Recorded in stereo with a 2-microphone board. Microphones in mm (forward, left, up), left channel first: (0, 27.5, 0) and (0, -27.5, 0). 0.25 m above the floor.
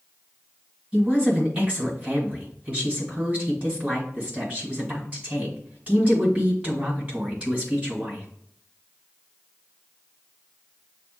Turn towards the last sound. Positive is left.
turn(degrees=-25)  # may be behind; listen again after turning